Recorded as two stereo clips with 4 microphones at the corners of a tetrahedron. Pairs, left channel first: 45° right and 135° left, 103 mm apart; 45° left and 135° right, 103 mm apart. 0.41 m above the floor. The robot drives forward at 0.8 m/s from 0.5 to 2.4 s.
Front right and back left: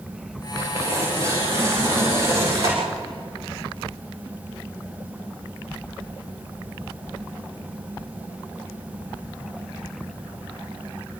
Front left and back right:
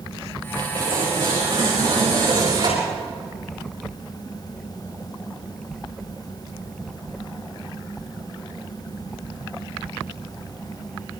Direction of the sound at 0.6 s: 170° right.